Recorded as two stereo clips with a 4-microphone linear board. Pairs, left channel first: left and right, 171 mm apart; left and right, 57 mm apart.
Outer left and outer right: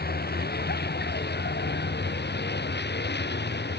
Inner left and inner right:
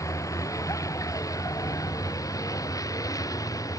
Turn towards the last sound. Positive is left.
turn(degrees=85)